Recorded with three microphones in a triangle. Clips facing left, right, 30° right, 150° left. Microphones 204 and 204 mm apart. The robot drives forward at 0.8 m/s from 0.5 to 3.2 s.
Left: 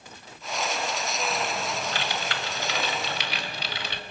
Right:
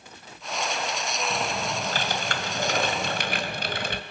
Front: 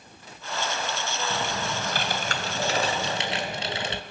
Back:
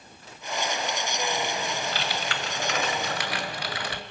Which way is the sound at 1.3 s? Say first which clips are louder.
Right 1 dB, even; 45° right.